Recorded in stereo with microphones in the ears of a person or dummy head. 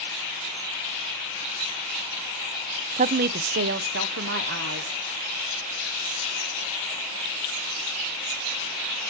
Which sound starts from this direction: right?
A woman speaking, at 3.0 s.